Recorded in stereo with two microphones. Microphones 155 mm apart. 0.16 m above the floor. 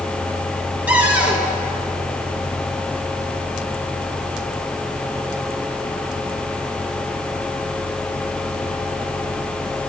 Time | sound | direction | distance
0.9 | a cupboard door | 10° right (ahead or behind) | 1.7 m